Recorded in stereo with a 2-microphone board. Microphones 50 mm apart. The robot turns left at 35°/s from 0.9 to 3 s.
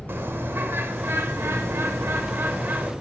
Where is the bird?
60° right, 0.7 m; by 2.9 s 130° right, 0.7 m.